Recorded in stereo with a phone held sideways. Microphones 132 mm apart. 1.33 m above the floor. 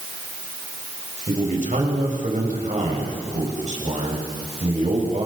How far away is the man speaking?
About 6.5 m.